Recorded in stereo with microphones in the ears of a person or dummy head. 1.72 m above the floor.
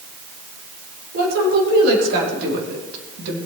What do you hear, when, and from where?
1.1 s a woman speaking: 50° right (ahead or behind), 5.5 m; by 3.4 s 65° right (ahead or behind), 3 m